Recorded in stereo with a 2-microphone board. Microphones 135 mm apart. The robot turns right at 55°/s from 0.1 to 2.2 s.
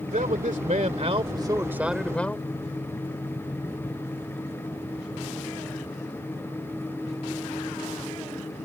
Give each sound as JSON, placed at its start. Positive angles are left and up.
{"t": 0.1, "sound": "a man speaking", "azimuth_deg": -105}